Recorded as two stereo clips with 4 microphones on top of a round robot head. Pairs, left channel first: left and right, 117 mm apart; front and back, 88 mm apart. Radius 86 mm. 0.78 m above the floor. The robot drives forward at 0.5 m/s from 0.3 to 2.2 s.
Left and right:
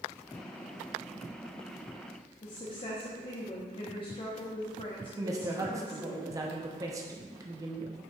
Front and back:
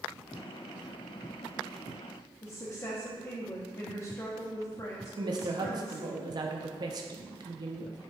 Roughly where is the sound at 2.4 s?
Ahead left.